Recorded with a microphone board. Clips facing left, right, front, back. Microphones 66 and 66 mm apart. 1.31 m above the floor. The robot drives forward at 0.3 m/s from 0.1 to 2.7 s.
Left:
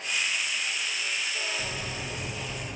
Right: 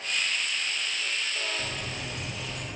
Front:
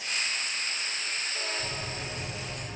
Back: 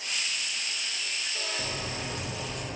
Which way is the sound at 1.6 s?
175° right.